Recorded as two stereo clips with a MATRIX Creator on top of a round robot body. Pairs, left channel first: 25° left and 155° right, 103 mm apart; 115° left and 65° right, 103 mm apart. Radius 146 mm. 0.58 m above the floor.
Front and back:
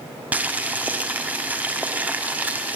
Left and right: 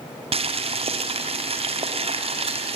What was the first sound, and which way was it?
Boiling, 85° right.